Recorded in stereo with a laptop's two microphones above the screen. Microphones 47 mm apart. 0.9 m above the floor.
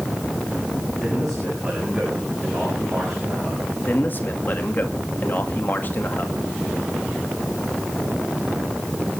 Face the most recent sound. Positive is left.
turn(degrees=40)  # may be behind; listen again after turning